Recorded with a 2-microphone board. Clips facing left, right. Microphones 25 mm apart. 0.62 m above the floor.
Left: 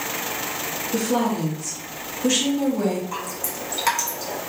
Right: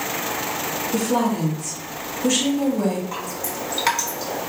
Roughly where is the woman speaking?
Left.